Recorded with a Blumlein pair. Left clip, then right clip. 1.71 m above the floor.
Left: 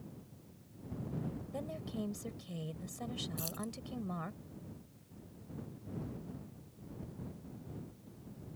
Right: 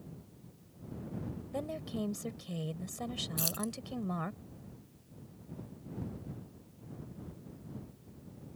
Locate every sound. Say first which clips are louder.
1.5 s a woman speaking: right 6 dB; 15° right
3.4 s keys jangling: right 6 dB; 65° right